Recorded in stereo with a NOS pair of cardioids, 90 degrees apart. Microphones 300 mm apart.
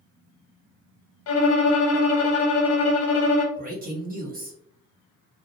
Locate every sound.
1.3 s a violin: 50° left, 0.7 m
3.6 s a man speaking: 30° right, 1.0 m